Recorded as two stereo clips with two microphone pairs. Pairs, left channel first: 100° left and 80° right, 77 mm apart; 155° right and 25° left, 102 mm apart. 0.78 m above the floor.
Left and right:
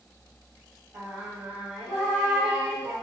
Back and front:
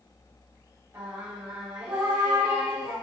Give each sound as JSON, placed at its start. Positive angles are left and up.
{"t": 0.9, "sound": "singing", "azimuth_deg": -30, "distance_m": 1.3}